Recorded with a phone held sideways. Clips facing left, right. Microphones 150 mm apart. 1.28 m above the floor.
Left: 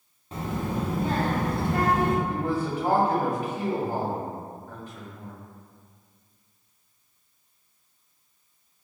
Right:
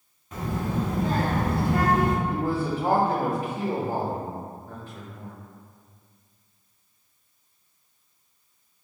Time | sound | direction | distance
0.3 | a child speaking | 30° left (ahead or behind) | 0.8 m
2.2 | a man speaking | 30° right (ahead or behind) | 1.2 m